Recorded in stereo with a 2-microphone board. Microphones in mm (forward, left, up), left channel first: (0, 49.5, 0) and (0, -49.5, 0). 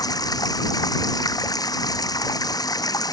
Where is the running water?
45° left (ahead or behind).